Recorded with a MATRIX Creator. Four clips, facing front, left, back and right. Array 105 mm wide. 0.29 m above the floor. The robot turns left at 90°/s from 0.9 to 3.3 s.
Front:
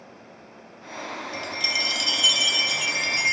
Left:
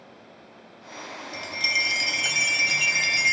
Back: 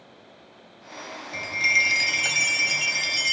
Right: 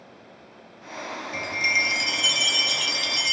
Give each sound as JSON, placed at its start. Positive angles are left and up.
{"t": 1.3, "sound": "a chime", "azimuth_deg": -120}